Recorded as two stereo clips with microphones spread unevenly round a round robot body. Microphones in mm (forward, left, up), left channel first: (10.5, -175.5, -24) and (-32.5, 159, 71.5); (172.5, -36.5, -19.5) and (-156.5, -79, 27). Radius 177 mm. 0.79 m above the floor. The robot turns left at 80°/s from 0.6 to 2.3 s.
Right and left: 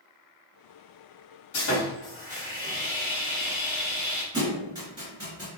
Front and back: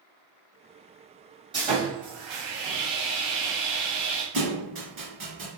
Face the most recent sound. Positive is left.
turn(degrees=170)